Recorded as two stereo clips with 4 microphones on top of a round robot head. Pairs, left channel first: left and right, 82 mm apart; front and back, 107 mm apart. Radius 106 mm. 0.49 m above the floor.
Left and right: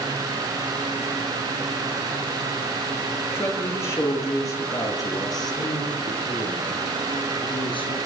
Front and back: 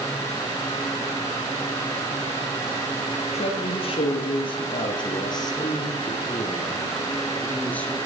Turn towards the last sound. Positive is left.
turn(degrees=80)